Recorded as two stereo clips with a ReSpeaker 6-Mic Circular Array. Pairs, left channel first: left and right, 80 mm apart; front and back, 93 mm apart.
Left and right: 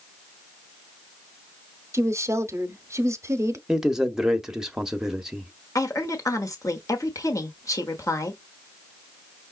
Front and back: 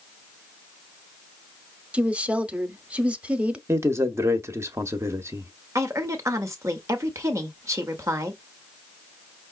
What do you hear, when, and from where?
1.9 s a woman speaking: 110° right, 0.8 m
3.7 s a man speaking: 165° right, 1.0 m
5.8 s a woman speaking: 130° left, 1.2 m